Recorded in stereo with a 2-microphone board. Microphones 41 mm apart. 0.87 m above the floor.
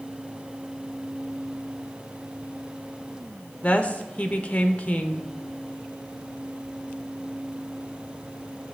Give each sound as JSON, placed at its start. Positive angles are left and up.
{"t": 3.6, "sound": "a woman speaking", "side_deg": 30, "distance_m": 1.0}